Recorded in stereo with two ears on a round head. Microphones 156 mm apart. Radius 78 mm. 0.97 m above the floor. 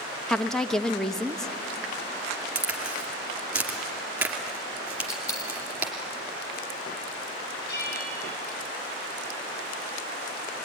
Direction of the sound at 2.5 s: 10° right (ahead or behind).